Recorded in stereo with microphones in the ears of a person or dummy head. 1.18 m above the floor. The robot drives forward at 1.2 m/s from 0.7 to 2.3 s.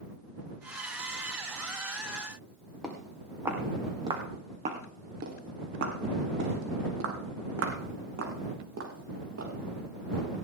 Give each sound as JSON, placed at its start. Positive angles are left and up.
{"t": 2.8, "sound": "footsteps", "side_deg": 0, "distance_m": 3.0}